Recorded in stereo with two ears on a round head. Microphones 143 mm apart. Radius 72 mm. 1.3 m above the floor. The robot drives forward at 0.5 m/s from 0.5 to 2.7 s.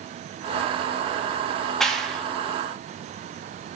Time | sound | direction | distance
1.8 | a clap | 5° left (ahead or behind) | 2.5 m